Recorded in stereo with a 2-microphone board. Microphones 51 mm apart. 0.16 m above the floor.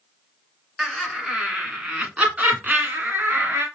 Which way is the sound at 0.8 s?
5° right (ahead or behind).